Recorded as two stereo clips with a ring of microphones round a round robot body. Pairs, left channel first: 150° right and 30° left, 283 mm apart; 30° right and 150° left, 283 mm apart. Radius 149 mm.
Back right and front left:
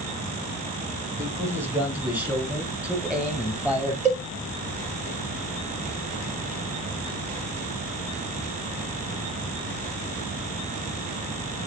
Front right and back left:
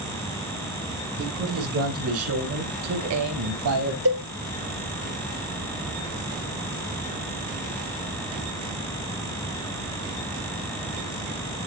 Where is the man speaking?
110° left, 3 m; by 4.0 s 115° left, 5 m.